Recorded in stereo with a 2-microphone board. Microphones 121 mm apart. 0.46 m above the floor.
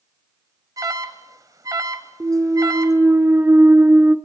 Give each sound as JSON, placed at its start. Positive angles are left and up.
{"t": 0.8, "sound": "an alarm", "side_deg": -30, "distance_m": 1.4}
{"t": 2.2, "sound": "a clunk", "side_deg": -20, "distance_m": 0.9}